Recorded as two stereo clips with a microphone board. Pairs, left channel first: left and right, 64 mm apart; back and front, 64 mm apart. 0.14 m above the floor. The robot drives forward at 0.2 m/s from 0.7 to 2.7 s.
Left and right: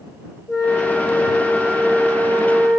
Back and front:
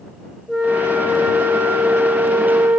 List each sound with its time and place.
0.5 s a flute: 75° left, 2.0 m; by 2.8 s 85° left, 1.9 m